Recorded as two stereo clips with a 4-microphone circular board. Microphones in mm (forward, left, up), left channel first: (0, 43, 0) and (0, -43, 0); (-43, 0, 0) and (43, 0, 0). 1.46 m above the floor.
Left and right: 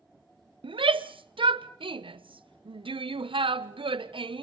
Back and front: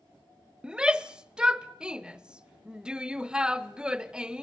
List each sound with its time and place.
0.6 s a shout: 80° right, 1.0 m